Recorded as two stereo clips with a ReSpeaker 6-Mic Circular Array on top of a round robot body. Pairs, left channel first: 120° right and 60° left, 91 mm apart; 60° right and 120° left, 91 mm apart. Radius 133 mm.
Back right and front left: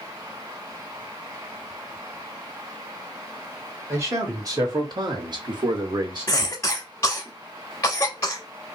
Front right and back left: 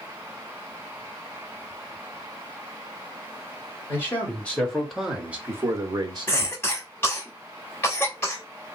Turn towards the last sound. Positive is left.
turn(degrees=-100)